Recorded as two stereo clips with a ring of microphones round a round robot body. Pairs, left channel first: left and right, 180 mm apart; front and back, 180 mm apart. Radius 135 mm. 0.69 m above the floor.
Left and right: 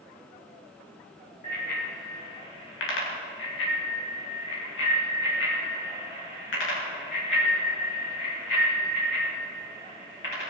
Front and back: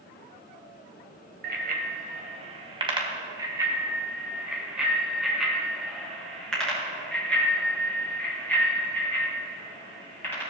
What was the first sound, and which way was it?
A bicycle bell, 145° left.